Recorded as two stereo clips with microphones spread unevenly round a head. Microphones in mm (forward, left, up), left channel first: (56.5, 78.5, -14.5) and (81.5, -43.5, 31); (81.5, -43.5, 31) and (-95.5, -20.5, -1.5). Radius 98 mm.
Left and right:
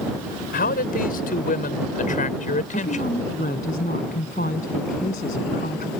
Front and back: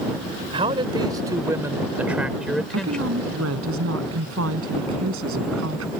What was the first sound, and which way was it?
A man speaking, 105° left.